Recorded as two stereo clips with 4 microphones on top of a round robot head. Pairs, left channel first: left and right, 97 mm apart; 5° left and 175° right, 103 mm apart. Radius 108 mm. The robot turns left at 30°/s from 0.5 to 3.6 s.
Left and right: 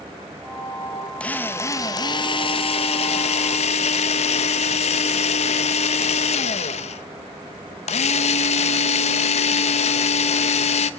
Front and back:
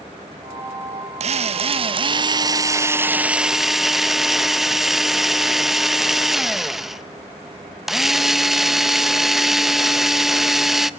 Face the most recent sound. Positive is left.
turn(degrees=100)